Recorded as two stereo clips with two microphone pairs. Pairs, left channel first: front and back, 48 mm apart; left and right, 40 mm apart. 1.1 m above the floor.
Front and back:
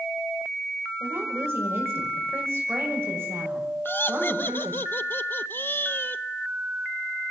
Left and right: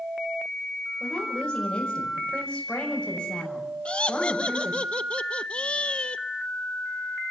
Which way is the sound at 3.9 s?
40° left.